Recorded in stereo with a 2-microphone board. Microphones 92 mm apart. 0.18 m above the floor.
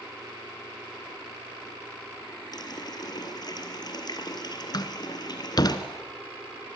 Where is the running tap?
50° left (ahead or behind), 2.5 m.